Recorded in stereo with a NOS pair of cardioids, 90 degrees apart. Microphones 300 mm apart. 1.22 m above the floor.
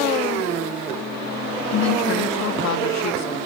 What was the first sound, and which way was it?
A woman speaking, 65° left.